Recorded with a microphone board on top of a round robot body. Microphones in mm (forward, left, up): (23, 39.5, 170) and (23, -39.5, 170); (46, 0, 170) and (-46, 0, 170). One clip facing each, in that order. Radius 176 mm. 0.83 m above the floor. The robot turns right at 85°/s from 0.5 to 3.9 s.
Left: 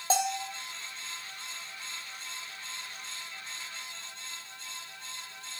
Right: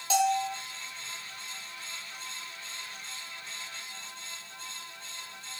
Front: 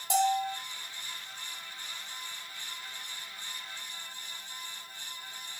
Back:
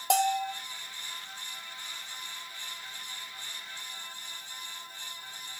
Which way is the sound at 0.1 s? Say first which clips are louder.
Right 4 dB, back 1 dB; 150° left.